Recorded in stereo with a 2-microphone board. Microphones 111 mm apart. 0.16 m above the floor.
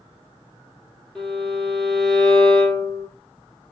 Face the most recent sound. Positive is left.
turn(degrees=0)  # may be behind; listen again after turning